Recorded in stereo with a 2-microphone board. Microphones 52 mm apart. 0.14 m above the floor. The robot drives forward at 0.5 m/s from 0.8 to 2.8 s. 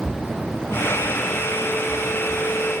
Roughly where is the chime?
I don't hear a chime.